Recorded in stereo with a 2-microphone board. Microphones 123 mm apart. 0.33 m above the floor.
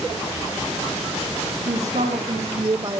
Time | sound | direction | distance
1.7 | a man speaking | 70° right (ahead or behind) | 2.5 m